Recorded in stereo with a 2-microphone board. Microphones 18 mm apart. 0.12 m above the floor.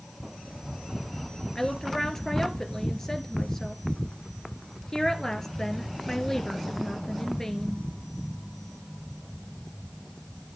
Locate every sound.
1.6 s a woman speaking: 25° left (ahead or behind), 1.9 m